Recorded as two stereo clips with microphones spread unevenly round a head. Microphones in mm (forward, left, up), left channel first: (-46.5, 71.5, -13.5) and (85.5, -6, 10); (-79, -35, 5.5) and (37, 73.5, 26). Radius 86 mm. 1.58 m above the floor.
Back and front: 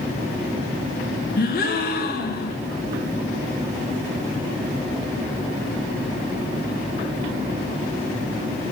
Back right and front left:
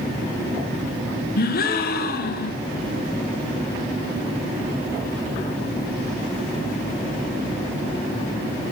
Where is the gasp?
165° right, 1.2 m.